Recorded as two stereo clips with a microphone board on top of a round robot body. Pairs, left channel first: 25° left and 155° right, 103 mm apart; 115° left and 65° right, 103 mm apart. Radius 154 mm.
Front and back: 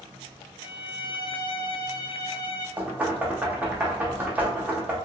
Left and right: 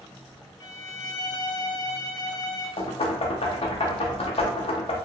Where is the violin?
60° left, 0.5 m.